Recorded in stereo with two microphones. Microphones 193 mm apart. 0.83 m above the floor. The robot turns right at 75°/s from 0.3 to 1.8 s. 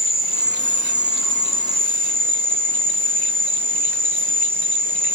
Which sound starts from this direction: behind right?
An insect, at 0.0 s.